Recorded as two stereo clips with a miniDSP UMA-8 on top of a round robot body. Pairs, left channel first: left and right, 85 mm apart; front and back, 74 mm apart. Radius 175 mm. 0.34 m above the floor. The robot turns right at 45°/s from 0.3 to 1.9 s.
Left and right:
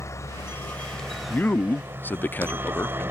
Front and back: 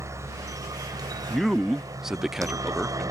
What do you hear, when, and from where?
0.0 s a helicopter: 140° left; by 3.1 s 150° right
1.3 s a man speaking: 75° left; by 3.1 s 105° left